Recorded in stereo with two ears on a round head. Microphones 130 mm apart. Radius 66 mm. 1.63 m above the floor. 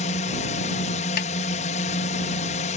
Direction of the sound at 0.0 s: 50° left (ahead or behind).